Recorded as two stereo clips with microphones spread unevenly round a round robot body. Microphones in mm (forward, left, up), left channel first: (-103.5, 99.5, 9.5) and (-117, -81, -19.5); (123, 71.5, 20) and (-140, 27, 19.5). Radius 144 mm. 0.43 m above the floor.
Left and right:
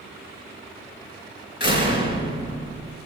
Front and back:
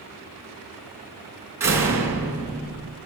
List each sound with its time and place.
1.6 s a door slam: 110° left, 4 m